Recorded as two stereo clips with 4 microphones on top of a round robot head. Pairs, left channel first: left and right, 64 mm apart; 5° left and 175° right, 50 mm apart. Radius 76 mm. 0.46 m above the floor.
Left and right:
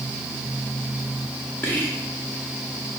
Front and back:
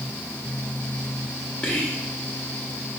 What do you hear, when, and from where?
1.6 s whispering: 45° left, 0.9 m